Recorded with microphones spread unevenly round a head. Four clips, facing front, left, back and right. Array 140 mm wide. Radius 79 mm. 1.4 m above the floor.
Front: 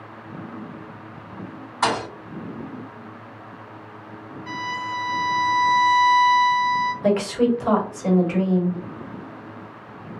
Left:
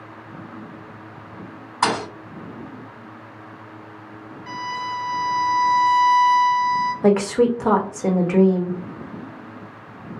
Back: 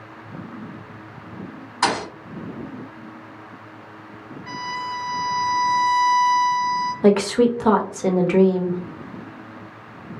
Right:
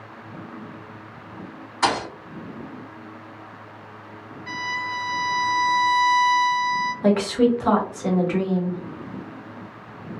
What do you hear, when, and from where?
1.8 s a thud: 100° left, 1.8 m
4.5 s a violin: 40° left, 1.6 m
7.0 s a woman speaking: 135° left, 0.8 m